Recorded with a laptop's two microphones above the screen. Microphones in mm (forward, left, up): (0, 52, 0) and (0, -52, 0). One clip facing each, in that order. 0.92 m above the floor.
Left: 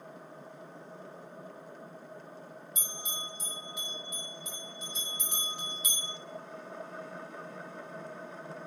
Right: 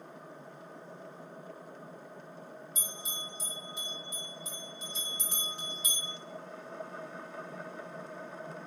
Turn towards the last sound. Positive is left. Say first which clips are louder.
# left 1 dB
turn(degrees=-30)  # may be behind; listen again after turning